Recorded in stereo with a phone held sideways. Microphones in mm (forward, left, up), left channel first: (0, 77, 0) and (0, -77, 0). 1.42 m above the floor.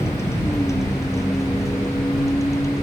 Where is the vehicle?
15° left (ahead or behind); by 2.8 s 20° left (ahead or behind).